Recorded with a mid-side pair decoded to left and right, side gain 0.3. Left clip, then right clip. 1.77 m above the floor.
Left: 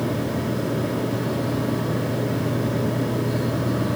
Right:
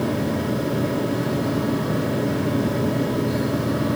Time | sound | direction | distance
0.0 | a fan | 30° right | 3.5 m